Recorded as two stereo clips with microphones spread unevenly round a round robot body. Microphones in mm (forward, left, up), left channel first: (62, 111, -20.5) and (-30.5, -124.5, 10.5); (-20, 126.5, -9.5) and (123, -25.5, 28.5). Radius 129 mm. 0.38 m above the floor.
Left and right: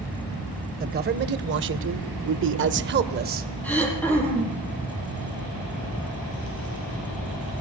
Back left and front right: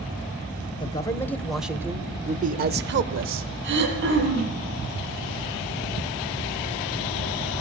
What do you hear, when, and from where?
0.8 s a man speaking: 170° right, 1.7 m; by 3.5 s 55° right, 1.6 m
3.6 s throat clearing: 15° right, 6 m